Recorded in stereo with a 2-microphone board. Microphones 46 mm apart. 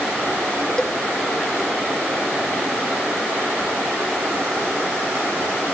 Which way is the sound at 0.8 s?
15° left (ahead or behind).